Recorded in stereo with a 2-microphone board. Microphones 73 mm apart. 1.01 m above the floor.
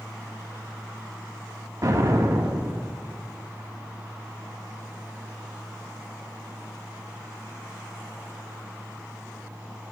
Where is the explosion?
55° right (ahead or behind), 2 m.